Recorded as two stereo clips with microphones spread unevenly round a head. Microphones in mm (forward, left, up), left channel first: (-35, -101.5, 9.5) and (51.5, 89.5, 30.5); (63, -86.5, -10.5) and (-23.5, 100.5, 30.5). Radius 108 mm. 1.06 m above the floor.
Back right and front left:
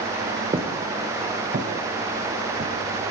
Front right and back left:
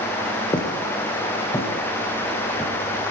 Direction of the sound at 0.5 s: 5° left.